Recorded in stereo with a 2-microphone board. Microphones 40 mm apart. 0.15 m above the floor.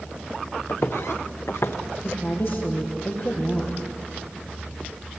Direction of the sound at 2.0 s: 60° left (ahead or behind).